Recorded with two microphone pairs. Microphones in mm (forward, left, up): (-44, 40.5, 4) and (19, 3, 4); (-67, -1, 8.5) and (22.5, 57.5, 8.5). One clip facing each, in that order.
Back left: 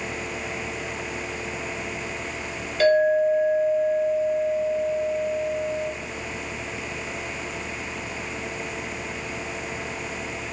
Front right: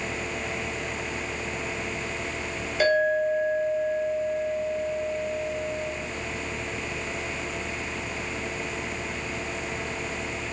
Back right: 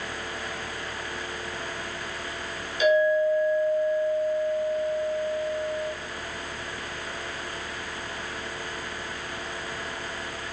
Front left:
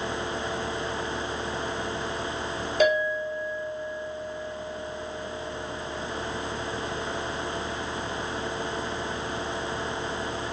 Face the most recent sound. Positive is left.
turn(degrees=50)